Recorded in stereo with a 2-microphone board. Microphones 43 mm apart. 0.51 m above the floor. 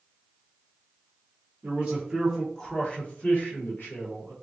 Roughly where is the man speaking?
Right.